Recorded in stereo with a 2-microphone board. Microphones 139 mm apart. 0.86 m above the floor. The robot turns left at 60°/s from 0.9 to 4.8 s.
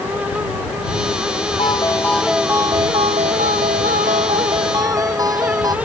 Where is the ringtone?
40° left; by 5.8 s 155° right.